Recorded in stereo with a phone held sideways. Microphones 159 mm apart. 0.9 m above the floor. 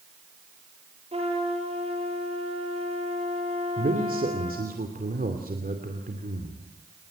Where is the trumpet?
40° right (ahead or behind), 4.5 m.